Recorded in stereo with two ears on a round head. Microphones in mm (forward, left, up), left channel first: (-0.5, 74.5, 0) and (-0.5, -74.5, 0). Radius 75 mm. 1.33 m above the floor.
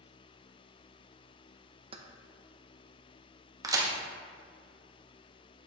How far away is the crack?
About 0.8 m.